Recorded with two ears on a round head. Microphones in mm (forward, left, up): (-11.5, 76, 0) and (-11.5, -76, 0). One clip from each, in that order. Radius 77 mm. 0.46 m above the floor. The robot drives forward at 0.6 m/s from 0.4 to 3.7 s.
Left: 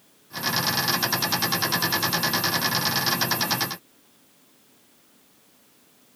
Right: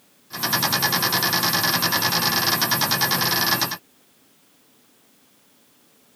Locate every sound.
Only background noise.